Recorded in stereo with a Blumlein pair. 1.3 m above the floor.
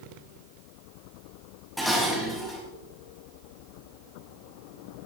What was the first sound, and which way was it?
Dishes clattering, straight ahead.